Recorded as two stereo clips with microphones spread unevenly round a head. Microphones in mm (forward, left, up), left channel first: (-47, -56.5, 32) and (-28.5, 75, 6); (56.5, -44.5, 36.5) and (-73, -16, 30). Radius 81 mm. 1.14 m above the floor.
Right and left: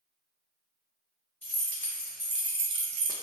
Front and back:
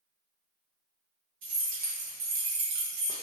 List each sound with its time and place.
1.4 s keys jangling: 170° right, 1.5 m; by 3.1 s 95° left, 0.5 m